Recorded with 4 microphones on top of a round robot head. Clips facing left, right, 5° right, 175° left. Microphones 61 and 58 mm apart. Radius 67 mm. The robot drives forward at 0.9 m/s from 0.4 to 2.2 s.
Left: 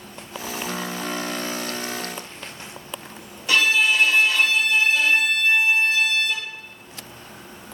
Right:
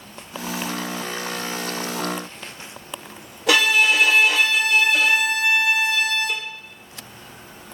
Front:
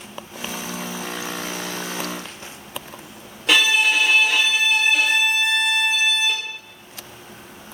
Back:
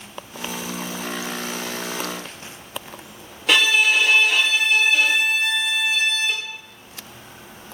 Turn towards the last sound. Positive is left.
turn(degrees=-95)